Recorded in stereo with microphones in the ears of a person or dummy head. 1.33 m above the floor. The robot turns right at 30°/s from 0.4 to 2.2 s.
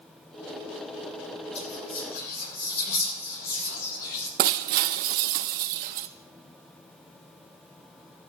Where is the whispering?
40° left (ahead or behind), 5.5 m; by 4.3 s 55° left (ahead or behind), 5.5 m.